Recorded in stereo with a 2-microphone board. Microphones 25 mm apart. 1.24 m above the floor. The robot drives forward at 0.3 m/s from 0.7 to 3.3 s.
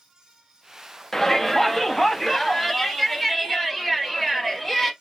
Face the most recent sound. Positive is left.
turn(degrees=10)  # may be behind; listen again after turning